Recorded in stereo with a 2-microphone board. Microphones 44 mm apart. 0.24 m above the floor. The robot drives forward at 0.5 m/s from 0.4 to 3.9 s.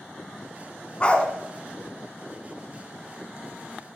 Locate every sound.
1.0 s a dog barking: 25° left (ahead or behind), 0.7 m